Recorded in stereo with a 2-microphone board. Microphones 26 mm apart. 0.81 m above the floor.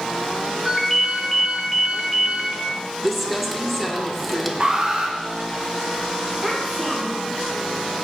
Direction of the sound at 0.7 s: Centre (ahead or behind).